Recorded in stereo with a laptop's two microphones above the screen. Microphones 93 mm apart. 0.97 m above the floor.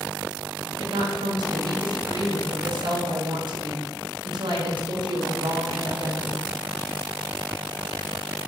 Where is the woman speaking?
55° right (ahead or behind), 0.7 m.